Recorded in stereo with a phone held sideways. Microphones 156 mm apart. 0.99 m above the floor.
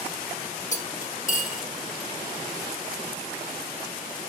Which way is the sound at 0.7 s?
55° left (ahead or behind).